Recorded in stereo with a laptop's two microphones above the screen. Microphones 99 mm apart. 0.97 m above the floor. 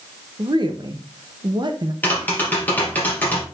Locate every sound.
0.4 s a woman speaking: 50° right (ahead or behind), 1.0 m
2.0 s tapping: 20° left (ahead or behind), 3 m